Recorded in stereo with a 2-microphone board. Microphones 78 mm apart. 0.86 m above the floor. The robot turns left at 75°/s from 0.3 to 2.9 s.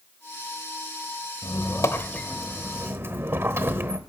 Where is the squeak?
80° left, 1.0 m; by 4.0 s 35° right, 1.0 m.